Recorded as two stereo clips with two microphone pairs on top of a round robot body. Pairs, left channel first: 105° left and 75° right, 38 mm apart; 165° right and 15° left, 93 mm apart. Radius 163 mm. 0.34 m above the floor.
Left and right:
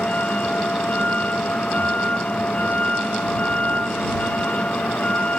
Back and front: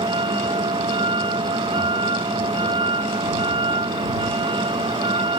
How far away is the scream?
I don't hear a scream.